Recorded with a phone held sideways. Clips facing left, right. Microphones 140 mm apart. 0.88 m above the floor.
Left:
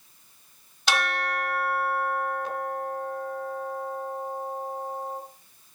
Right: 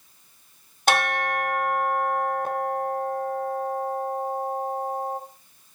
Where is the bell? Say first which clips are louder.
Right 4 dB; 50° right (ahead or behind), 1.2 m.